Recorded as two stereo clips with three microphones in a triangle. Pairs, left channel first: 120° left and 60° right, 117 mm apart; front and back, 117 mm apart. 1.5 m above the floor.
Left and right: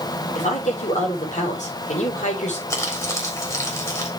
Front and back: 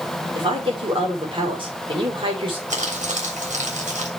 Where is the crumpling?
Straight behind, 3.5 m.